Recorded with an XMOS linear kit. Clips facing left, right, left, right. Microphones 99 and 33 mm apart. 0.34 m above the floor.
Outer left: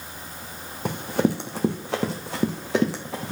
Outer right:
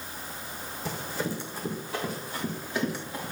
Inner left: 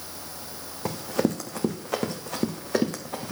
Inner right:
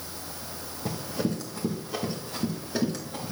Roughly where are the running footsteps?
Left.